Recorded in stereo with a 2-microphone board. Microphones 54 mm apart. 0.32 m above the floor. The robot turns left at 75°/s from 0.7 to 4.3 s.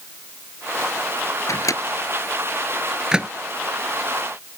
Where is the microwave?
70° left (ahead or behind); by 3.3 s 25° right (ahead or behind).